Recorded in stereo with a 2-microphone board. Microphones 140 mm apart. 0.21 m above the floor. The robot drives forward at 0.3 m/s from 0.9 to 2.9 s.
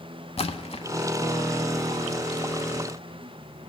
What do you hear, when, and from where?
0.4 s a splash: 45° left (ahead or behind), 0.7 m